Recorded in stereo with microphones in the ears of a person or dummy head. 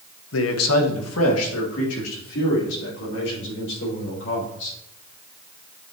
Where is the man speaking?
65° left (ahead or behind), 1.0 m; by 4.8 s 70° left (ahead or behind), 6.5 m.